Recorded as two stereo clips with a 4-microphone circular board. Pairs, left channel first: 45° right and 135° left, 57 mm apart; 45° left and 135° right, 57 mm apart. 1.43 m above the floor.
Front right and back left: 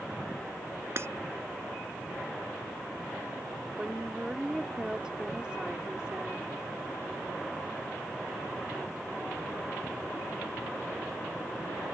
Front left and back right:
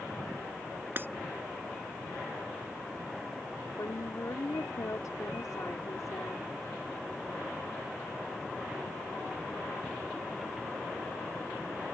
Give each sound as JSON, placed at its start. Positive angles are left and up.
{"t": 1.0, "sound": "breaking glass", "azimuth_deg": 175}
{"t": 3.8, "sound": "a woman speaking", "azimuth_deg": 60}